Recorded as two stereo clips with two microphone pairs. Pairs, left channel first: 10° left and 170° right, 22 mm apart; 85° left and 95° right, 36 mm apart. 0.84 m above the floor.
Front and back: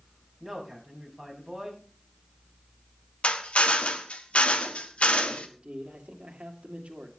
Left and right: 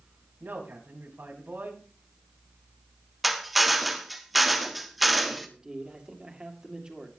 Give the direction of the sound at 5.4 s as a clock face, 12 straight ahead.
5 o'clock.